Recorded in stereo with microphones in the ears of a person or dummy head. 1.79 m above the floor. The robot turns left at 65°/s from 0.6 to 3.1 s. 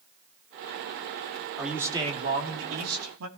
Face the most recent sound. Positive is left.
turn(degrees=-95)